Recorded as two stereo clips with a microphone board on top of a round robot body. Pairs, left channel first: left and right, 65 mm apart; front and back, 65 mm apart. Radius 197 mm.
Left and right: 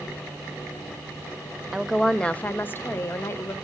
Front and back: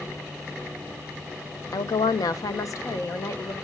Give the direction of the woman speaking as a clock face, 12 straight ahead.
12 o'clock.